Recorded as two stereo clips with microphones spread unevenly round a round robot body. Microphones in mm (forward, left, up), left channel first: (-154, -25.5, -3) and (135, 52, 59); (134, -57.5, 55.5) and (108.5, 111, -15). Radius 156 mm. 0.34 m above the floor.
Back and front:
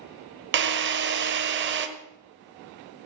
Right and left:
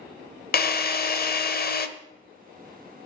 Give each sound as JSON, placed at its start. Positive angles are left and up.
{"t": 0.5, "sound": "a drill", "azimuth_deg": -40, "distance_m": 1.3}